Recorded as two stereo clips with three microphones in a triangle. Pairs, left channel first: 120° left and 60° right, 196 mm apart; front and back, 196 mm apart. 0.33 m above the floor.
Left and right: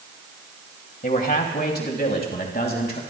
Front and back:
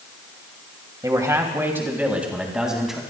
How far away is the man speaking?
About 2 m.